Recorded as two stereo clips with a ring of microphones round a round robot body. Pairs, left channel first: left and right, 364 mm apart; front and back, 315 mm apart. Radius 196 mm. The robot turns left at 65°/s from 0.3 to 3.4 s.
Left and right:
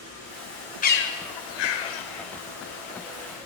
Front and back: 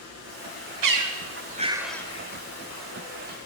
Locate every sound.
0.8 s a bird: 160° left, 2.5 m; by 3.5 s 5° right, 2.5 m